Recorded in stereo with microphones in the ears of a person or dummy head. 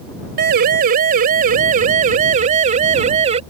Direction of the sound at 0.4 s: 50° right (ahead or behind).